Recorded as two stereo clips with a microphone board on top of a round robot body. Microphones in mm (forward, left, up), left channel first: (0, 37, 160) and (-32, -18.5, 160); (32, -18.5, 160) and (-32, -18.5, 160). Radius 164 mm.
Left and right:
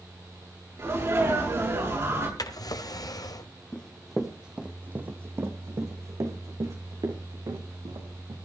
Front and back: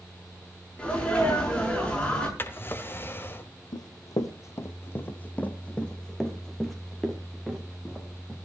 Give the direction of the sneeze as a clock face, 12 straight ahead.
2 o'clock.